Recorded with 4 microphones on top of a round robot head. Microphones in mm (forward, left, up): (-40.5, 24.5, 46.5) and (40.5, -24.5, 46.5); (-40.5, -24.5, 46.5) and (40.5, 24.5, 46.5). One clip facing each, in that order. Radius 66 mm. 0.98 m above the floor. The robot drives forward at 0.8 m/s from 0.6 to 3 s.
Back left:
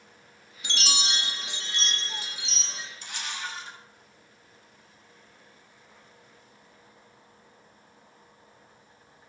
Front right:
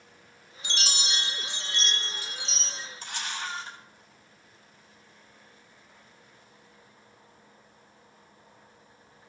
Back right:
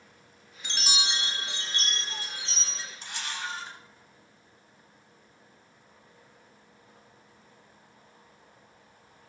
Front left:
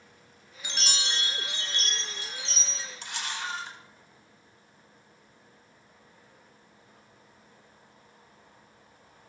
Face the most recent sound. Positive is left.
turn(degrees=20)